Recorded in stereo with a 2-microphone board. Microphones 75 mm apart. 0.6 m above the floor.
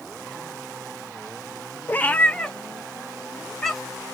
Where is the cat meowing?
25° left (ahead or behind), 0.5 m; by 4.0 s 5° left (ahead or behind), 2.0 m.